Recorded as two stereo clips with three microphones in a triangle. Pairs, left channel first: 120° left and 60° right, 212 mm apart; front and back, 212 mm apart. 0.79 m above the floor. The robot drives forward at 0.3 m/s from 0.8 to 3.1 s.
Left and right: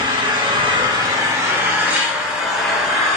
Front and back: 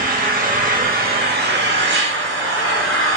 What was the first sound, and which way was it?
An engine running, 130° right.